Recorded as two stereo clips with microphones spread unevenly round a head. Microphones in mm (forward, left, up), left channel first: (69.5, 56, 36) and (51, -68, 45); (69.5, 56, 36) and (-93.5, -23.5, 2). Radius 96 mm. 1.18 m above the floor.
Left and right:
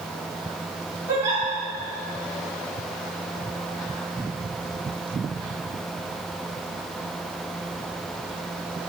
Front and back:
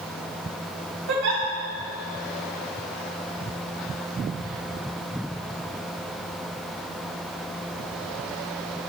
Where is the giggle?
170° right, 2.5 m.